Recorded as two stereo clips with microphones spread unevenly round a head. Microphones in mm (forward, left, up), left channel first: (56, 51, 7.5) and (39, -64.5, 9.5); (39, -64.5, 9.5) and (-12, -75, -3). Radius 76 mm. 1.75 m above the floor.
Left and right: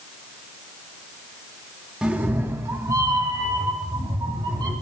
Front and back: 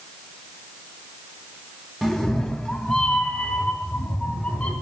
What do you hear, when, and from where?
2.0 s a cat meowing: 35° right, 1.0 m; by 4.7 s 50° right, 3 m